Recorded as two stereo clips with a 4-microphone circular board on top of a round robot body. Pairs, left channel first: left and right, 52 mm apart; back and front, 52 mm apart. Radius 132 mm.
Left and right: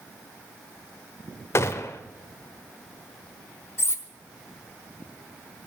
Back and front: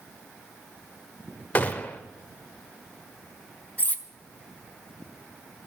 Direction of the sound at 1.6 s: 125° left.